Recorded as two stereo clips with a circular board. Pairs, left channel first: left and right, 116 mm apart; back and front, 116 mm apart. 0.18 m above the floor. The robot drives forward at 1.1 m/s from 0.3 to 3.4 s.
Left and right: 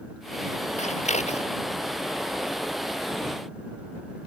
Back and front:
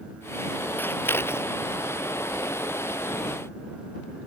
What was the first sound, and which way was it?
Scissors, 105° left.